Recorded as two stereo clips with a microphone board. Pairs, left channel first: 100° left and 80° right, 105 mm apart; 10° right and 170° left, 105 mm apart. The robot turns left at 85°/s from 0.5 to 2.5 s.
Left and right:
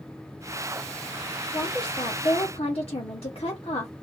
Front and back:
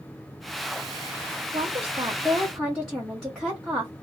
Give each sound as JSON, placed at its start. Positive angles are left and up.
{"t": 1.5, "sound": "a woman speaking", "azimuth_deg": 165, "distance_m": 1.2}